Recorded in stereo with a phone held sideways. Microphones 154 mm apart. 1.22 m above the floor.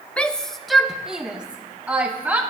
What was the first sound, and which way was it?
A shout, 10° left (ahead or behind).